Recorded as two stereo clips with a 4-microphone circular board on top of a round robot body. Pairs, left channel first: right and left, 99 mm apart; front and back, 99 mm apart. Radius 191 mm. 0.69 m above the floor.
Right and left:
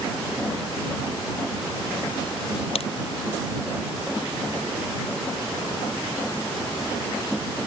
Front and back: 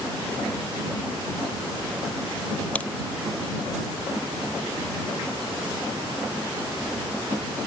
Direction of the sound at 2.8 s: 75° right.